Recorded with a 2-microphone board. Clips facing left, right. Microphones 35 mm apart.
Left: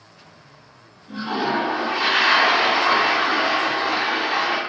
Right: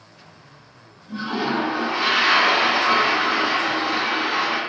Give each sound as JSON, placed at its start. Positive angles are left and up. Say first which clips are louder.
{"t": 1.1, "sound": "a toilet flushing", "louder": "left 1 dB", "side_deg": 50, "distance_m": 1.5}